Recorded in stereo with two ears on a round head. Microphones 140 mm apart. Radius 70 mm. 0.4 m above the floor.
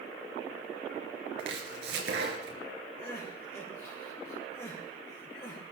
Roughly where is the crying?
Centre.